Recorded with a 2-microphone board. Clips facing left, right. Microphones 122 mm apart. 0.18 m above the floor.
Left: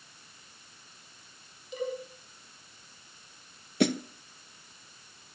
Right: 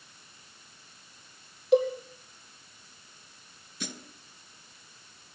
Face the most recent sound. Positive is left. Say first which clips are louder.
# left 16 dB
turn(degrees=70)  # may be behind; listen again after turning